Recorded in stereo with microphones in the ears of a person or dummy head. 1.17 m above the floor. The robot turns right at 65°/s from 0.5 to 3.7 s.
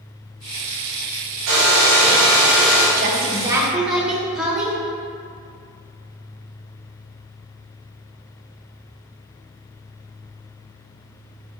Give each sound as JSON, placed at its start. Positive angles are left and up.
{"t": 1.5, "sound": "a hair dryer", "azimuth_deg": -75, "distance_m": 1.9}
{"t": 3.0, "sound": "a woman speaking", "azimuth_deg": -50, "distance_m": 1.6}